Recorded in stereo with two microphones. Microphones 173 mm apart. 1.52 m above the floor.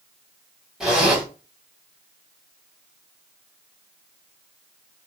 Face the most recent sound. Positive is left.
turn(degrees=-5)  # may be behind; listen again after turning